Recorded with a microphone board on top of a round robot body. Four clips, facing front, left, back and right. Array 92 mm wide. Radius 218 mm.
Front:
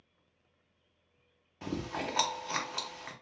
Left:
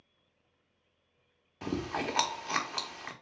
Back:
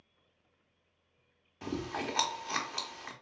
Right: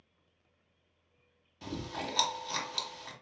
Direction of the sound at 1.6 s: 85° left.